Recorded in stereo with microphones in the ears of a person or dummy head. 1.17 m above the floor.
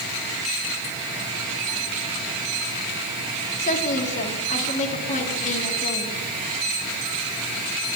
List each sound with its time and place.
3.6 s a woman speaking: 40° left (ahead or behind), 2.5 m